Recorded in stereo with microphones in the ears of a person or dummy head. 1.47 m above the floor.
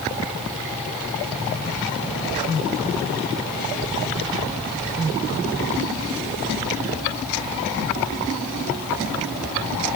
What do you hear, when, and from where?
Only background noise.